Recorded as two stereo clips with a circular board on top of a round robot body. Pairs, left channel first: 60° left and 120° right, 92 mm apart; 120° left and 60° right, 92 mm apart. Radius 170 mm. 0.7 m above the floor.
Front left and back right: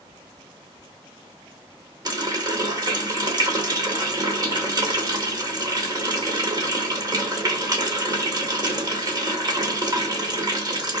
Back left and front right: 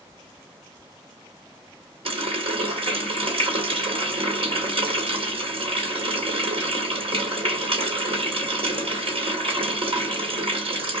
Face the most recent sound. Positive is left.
turn(degrees=-75)